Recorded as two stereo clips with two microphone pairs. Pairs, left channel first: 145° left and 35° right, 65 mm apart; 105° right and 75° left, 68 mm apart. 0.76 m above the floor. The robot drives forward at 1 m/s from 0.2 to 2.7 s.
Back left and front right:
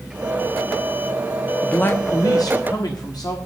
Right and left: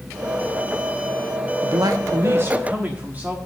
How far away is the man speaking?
About 0.8 m.